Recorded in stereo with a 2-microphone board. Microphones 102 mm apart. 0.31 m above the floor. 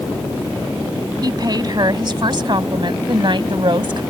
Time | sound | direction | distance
1.2 | a woman speaking | 45° right (ahead or behind) | ?